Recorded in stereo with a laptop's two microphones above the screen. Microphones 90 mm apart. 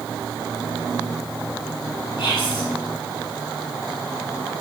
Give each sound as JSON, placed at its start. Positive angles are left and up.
{"t": 2.2, "sound": "whispering", "side_deg": 60, "distance_m": 1.4}